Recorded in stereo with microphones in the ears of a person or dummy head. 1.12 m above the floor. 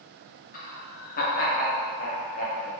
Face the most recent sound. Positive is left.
turn(degrees=40)  # may be behind; listen again after turning